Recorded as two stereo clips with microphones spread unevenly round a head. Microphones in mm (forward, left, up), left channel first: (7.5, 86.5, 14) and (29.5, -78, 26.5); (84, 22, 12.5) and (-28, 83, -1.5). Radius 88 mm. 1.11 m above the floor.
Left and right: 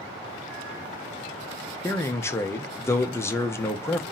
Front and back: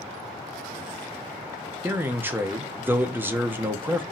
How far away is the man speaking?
About 0.5 m.